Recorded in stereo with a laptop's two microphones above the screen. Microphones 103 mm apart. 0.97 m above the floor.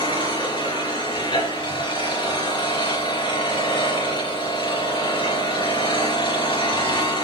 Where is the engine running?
45° left (ahead or behind), 3.5 m.